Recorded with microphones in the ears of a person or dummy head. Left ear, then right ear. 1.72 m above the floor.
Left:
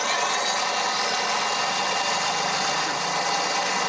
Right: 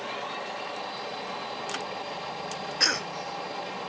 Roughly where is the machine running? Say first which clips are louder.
Left 11 dB; left.